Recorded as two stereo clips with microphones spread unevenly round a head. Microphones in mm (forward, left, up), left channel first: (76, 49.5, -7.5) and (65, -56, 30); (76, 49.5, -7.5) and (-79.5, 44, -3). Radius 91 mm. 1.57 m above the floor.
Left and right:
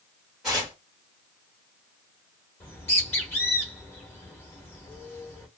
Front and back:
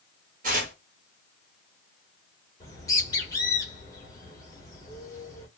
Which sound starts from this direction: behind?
Tearing paper, at 0.4 s.